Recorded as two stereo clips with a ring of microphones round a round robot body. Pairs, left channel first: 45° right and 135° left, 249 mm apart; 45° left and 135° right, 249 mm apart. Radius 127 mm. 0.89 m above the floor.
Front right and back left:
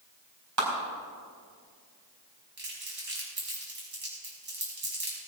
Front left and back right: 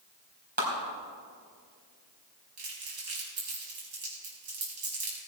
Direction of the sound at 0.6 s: 165° left.